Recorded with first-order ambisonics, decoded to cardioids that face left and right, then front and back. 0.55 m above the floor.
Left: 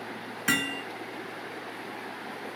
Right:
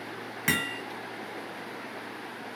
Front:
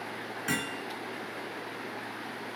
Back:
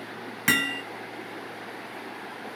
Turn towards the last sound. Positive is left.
turn(degrees=-155)